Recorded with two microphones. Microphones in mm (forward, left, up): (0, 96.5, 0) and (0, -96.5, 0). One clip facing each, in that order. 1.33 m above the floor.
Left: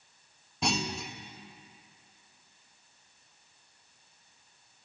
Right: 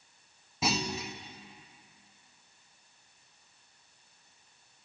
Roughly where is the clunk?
Centre.